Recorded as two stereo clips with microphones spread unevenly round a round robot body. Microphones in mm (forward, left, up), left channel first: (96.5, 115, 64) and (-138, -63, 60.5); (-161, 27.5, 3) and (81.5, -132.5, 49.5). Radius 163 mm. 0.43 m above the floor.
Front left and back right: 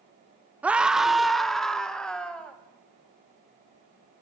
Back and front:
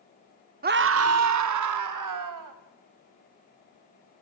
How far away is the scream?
About 1.0 m.